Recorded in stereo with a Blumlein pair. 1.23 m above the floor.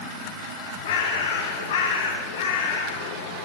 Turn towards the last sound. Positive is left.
turn(degrees=50)